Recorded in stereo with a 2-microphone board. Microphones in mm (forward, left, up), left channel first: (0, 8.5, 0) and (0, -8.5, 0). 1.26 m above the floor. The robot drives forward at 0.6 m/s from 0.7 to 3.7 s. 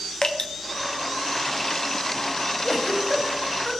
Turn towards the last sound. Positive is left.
turn(degrees=-20)  # may be behind; listen again after turning